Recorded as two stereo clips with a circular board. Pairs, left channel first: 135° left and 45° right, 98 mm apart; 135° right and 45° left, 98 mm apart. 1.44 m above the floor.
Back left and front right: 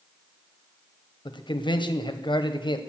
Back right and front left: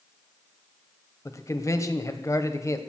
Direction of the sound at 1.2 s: 170° left.